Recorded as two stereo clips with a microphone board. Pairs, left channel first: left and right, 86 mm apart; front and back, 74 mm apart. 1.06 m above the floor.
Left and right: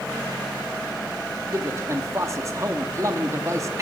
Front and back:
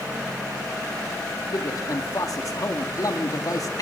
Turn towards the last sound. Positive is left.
turn(degrees=-35)